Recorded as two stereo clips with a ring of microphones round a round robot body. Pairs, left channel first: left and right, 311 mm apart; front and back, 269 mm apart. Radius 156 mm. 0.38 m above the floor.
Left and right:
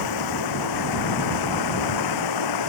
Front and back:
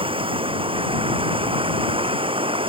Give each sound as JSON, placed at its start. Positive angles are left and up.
{"t": 0.0, "sound": "running water", "azimuth_deg": 110}